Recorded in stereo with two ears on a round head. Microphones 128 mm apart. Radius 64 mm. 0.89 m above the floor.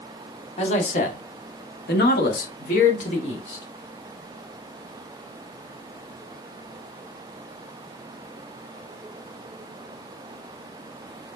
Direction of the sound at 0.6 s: 50° left (ahead or behind).